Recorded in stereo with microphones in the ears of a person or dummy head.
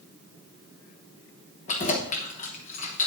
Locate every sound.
1.7 s keys jangling: 35° left (ahead or behind), 1.1 m